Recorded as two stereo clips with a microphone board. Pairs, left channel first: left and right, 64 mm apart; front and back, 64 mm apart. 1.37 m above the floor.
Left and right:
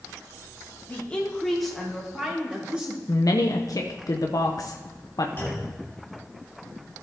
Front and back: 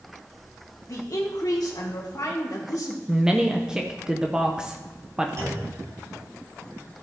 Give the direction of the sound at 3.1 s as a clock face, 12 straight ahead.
9 o'clock.